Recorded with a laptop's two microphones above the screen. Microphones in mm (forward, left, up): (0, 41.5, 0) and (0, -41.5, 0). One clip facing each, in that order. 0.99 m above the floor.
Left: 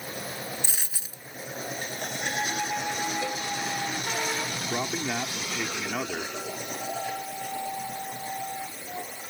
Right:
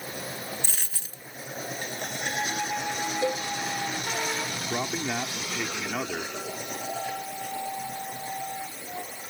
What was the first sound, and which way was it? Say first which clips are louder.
A dropped coin: even; 10° left (ahead or behind).